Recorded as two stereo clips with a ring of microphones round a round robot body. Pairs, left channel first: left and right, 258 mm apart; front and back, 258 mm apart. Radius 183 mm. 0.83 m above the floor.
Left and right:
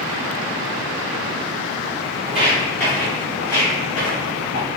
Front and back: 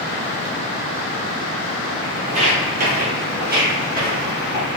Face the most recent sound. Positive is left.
turn(degrees=125)